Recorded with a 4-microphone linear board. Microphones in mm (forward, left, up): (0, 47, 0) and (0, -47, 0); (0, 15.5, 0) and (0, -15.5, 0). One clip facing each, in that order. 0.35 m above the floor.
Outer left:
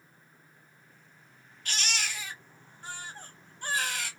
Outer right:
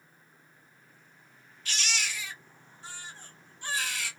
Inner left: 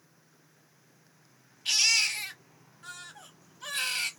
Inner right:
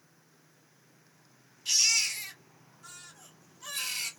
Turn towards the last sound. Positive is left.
turn(degrees=50)  # may be behind; listen again after turning